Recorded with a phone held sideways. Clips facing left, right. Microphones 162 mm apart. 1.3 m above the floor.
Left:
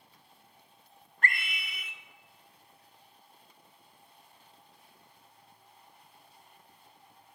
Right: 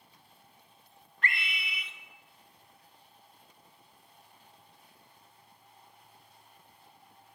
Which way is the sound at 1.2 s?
45° left (ahead or behind).